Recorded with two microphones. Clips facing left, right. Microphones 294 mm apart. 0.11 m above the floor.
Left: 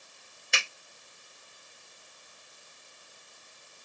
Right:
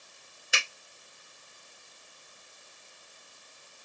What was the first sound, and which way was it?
A finger snap, 5° right (ahead or behind).